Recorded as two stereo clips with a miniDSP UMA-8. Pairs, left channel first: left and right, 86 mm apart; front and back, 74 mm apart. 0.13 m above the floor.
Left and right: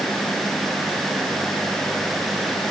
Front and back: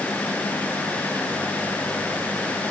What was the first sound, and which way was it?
Only background noise.